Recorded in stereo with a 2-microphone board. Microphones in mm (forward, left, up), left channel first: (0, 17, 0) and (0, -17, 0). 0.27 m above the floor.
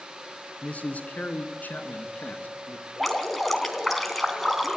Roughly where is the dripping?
Centre.